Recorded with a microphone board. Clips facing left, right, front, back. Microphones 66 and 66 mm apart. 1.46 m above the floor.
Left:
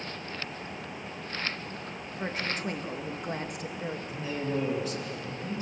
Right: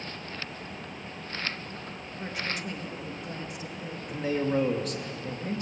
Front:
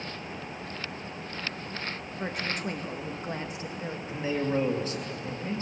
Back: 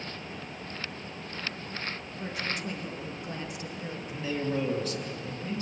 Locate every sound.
2.2 s a woman speaking: 30° left, 2.5 m; by 4.0 s 65° left, 2.5 m
4.1 s a man speaking: 60° right, 2.5 m